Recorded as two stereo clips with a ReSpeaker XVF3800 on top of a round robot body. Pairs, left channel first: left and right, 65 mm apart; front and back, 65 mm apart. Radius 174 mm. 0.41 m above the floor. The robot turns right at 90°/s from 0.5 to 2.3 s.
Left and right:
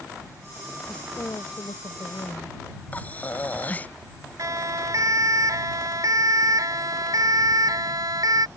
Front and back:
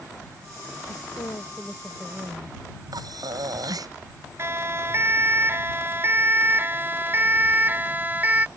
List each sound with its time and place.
0.9 s a woman speaking: 10° left; by 2.6 s 135° left
2.9 s breathing: 155° left
4.4 s a siren: 125° right; by 8.5 s 115° right